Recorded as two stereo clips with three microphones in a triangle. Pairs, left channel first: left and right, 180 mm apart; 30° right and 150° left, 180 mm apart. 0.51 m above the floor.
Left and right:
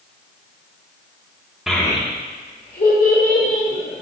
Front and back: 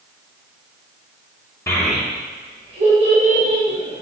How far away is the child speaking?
About 0.5 m.